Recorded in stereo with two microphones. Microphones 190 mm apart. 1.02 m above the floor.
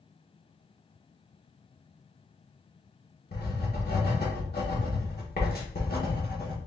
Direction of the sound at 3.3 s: 55° left (ahead or behind).